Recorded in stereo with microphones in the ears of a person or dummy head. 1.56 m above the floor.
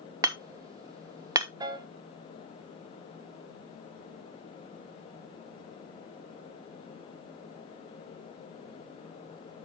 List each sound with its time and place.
0.2 s hammering: 20° right (ahead or behind), 0.6 m
1.6 s a piano: 20° right (ahead or behind), 1.3 m